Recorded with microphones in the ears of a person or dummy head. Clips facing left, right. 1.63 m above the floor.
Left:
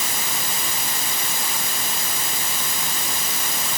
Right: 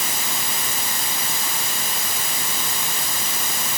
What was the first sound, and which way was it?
Only background noise.